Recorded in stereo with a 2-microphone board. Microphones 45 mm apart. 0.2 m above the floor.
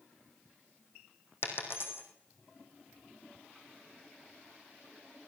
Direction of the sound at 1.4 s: 60° left (ahead or behind).